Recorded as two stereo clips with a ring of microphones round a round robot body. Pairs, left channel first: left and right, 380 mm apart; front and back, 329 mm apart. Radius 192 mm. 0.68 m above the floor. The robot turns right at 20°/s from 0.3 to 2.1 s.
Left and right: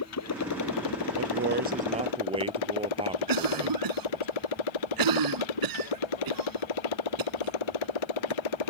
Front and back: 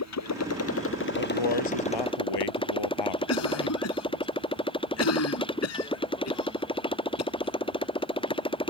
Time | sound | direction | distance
0.0 | a motorcycle | 40° left | ?
1.2 | a man speaking | 30° right | ?
3.3 | a cough | 55° right | ?